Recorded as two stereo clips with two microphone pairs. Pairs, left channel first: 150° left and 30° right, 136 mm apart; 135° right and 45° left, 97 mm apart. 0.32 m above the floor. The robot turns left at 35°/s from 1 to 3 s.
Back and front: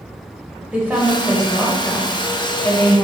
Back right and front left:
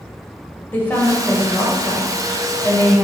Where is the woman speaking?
95° right, 1.5 m; by 3.0 s 165° right, 1.5 m.